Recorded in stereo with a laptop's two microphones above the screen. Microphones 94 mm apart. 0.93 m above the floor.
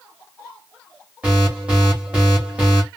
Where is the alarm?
15° right (ahead or behind), 2.5 m.